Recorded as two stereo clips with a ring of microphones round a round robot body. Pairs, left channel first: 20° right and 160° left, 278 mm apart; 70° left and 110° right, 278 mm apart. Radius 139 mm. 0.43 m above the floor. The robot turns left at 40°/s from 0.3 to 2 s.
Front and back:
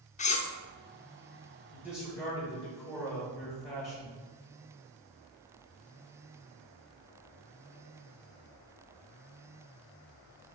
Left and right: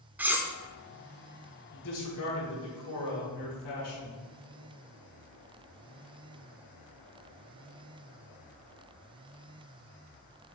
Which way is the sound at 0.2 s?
35° right.